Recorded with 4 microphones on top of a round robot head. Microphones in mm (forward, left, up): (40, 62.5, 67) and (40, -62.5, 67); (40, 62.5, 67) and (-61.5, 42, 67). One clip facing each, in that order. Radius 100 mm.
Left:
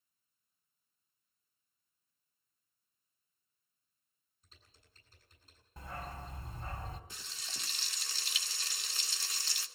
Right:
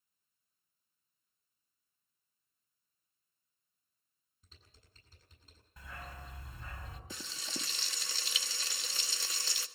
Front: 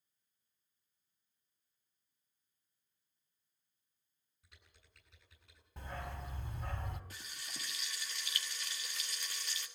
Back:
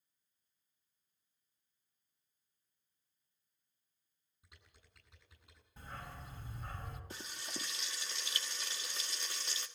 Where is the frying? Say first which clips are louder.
Right 7 dB, back 5 dB; 95° right, 1.3 m.